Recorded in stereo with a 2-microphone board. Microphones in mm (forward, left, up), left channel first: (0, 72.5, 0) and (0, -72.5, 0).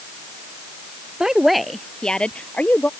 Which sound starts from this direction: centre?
A woman speaking, at 1.2 s.